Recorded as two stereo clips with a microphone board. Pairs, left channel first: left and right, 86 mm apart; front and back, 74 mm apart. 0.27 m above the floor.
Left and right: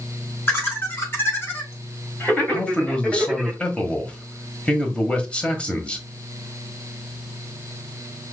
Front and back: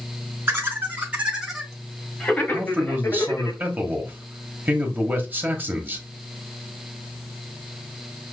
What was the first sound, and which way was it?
Laughter, 140° left.